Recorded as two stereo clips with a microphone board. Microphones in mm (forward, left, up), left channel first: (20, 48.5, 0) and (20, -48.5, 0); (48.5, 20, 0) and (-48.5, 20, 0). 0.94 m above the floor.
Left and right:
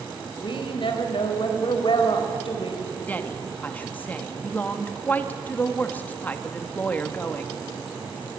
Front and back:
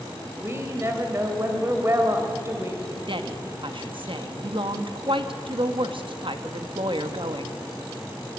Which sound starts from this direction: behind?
A woman speaking, at 3.1 s.